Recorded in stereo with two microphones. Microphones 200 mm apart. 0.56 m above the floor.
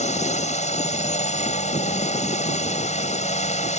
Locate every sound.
0.0 s a drone: 35° left (ahead or behind)